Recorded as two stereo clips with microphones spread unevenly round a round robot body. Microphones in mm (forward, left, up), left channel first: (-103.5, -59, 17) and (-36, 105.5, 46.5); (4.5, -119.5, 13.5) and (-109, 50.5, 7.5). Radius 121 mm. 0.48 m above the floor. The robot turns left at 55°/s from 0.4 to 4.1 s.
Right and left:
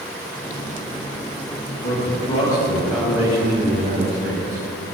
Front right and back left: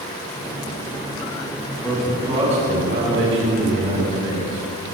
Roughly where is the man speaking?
Behind right.